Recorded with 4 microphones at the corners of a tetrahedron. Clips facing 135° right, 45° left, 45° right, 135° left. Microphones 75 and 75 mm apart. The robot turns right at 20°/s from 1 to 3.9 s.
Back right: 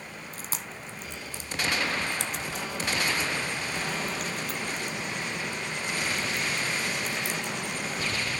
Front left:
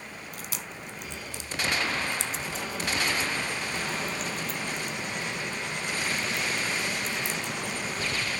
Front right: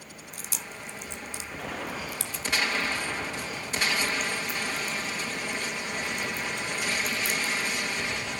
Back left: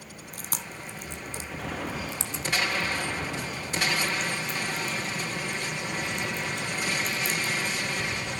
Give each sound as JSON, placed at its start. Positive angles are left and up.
{"t": 0.3, "sound": "chewing", "azimuth_deg": 175, "distance_m": 1.0}